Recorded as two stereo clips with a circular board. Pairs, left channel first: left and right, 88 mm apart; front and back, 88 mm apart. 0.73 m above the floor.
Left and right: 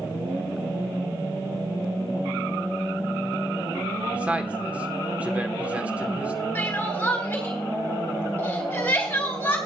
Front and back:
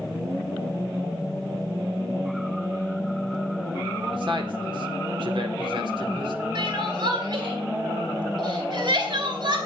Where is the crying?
155° left, 3 m.